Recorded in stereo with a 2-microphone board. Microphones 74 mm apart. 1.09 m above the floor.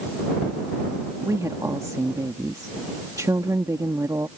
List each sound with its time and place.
1.2 s a woman speaking: 50° right (ahead or behind)